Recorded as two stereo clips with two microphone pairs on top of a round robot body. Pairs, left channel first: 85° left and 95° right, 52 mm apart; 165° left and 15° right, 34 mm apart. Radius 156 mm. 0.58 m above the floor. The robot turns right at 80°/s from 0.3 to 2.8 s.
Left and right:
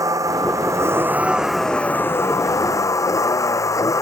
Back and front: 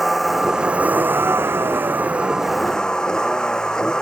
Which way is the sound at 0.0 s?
105° right.